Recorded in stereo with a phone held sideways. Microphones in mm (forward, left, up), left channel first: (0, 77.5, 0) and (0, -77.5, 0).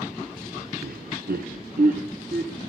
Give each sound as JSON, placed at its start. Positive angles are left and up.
{"t": 0.8, "sound": "laughter", "side_deg": -75, "distance_m": 0.7}